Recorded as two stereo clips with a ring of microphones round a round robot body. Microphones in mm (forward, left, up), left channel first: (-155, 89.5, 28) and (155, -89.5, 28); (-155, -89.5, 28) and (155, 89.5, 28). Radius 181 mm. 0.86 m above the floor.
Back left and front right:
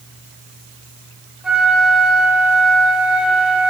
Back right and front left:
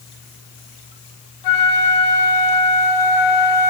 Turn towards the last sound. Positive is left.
turn(degrees=-120)